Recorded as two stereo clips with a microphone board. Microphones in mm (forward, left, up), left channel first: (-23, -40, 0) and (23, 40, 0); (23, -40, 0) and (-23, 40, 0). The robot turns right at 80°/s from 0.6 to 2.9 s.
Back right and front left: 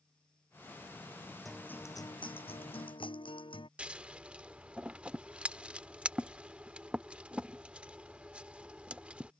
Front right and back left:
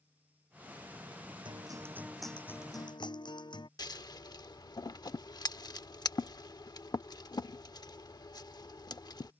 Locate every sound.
1.4 s a guitar: 150° left; by 3.7 s 95° right
3.8 s scissors: 20° right